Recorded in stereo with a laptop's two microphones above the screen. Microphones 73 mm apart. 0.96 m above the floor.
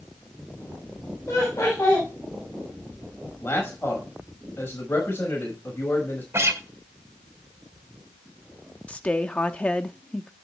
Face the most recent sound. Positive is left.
turn(degrees=20)  # may be behind; listen again after turning